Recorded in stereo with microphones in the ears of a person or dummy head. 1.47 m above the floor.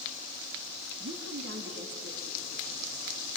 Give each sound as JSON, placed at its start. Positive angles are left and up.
{"t": 1.0, "sound": "a woman speaking", "side_deg": -80, "distance_m": 2.0}